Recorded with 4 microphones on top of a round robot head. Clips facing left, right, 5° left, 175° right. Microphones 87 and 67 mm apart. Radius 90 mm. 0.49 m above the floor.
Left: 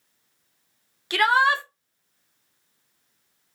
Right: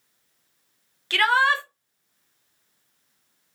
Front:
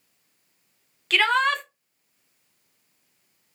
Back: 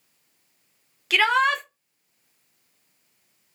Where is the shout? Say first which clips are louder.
Left 1 dB, back 1 dB; 115° left, 0.9 m.